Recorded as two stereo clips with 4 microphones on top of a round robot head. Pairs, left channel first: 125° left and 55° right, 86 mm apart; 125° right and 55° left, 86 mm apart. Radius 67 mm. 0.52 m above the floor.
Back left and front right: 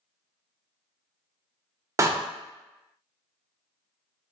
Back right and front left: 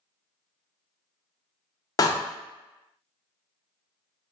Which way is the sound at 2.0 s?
100° right.